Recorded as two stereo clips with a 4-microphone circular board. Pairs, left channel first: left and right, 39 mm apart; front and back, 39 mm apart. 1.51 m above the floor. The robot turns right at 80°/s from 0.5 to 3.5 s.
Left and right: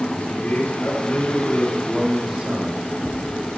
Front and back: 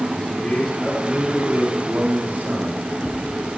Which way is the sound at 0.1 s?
55° left.